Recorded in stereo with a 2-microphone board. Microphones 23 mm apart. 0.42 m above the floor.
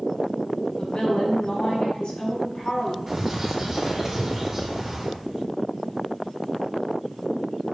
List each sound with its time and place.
0.8 s a woman speaking: 50° left (ahead or behind), 3.5 m
3.1 s a bird: 5° right (ahead or behind), 4 m